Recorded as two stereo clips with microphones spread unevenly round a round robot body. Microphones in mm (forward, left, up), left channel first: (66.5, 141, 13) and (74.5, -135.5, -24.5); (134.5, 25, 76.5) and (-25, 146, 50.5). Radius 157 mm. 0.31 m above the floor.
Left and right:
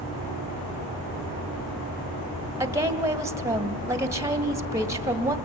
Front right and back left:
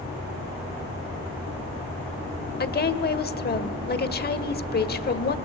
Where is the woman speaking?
20° right, 2.0 m.